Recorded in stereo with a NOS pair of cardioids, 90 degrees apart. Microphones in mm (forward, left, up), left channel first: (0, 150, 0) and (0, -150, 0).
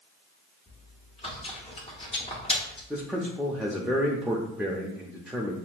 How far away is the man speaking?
About 0.6 m.